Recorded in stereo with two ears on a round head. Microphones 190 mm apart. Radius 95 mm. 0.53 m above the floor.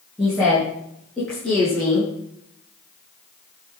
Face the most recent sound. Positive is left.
turn(degrees=5)  # may be behind; listen again after turning